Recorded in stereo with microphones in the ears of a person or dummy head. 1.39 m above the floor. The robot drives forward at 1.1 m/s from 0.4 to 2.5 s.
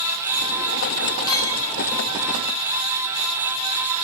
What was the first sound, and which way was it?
A clink, 15° left (ahead or behind).